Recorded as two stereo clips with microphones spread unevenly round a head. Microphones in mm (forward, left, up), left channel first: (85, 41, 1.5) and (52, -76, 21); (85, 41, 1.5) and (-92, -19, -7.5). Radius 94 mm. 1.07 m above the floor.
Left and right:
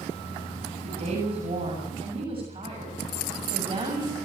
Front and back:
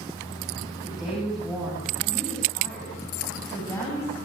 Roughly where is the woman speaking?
Right.